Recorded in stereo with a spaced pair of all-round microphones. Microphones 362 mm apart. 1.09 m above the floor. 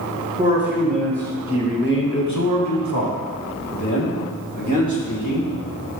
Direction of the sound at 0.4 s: 10° right (ahead or behind).